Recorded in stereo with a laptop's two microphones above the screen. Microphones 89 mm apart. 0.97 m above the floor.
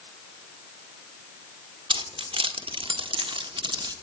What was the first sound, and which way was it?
Keys jangling, 70° right (ahead or behind).